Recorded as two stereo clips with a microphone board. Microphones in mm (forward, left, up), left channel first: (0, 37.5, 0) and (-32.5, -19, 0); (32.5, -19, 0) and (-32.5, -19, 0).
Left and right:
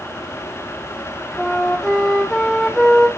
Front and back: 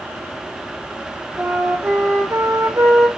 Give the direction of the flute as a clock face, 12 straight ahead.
7 o'clock.